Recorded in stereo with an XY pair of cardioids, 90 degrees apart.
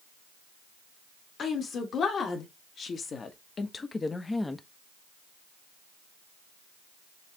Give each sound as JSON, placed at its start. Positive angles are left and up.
{"t": 1.4, "sound": "a woman speaking", "azimuth_deg": 65, "distance_m": 2.0}